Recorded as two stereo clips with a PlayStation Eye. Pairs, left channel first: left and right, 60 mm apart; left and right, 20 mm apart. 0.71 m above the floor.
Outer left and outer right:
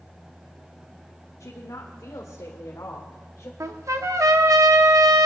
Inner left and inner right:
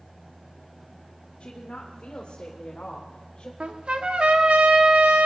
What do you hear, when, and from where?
1.4 s a woman speaking: 70° left (ahead or behind), 1.7 m; by 3.5 s 50° left (ahead or behind), 2.5 m
3.6 s a trumpet: 60° right (ahead or behind), 1.1 m